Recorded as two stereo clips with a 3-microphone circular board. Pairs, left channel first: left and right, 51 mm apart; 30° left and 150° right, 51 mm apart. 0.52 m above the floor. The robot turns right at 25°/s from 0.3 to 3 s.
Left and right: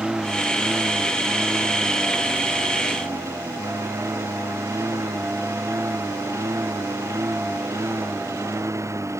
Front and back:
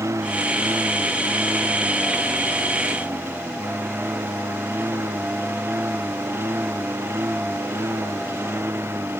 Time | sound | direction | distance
0.0 | a lawn mower | 170° right | ?